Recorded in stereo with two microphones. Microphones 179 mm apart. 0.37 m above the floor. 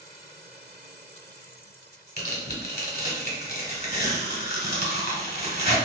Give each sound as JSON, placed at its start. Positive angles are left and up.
{"t": 2.2, "sound": "tearing paper", "side_deg": 65, "distance_m": 1.1}